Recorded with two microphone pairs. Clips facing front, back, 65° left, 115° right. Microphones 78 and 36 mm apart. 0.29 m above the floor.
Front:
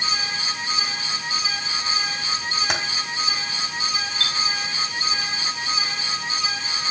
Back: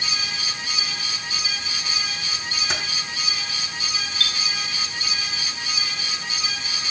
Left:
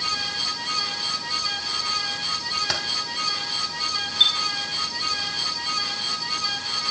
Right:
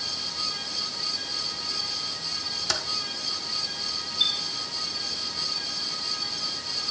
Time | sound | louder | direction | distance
2.7 | typing on a keyboard | front 2 dB, even | 5° right | 2.5 m
4.2 | a chime | front 2 dB, left 6 dB | 50° left | 1.7 m